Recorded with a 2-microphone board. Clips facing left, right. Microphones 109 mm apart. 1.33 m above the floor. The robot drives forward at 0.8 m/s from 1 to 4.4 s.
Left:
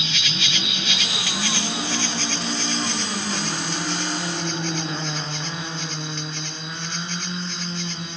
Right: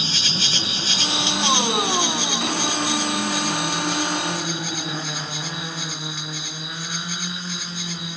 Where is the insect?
30° right (ahead or behind); by 8.2 s 5° right (ahead or behind).